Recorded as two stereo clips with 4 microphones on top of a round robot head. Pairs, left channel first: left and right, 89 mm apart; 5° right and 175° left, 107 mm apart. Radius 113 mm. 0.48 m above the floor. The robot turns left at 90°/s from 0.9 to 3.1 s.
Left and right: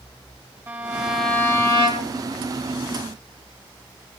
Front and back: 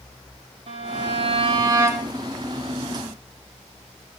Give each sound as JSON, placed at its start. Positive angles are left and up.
{"t": 0.7, "sound": "a violin", "azimuth_deg": -155, "distance_m": 4.5}